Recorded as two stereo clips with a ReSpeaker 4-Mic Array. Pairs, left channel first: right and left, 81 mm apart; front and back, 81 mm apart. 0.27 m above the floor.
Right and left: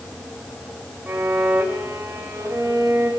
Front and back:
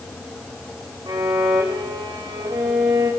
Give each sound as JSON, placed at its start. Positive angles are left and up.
{"t": 1.1, "sound": "a violin", "azimuth_deg": 160, "distance_m": 6.0}